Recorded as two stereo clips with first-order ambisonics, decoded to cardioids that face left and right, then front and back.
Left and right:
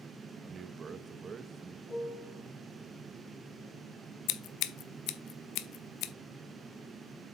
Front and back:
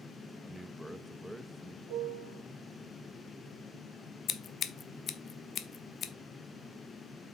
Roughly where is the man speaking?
Right.